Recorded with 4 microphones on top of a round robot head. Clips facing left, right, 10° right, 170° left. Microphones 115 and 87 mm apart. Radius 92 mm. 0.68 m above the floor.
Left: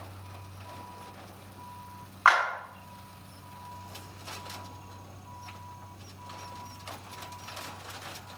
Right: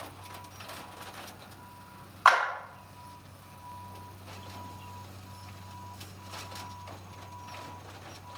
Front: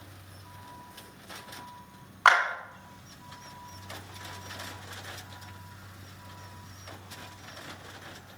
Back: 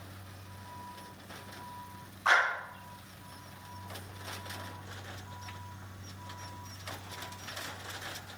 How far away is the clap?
About 2.5 m.